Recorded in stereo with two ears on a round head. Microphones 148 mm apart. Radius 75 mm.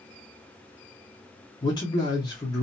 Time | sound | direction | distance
1.6 | a man speaking | 25° left (ahead or behind) | 1.0 m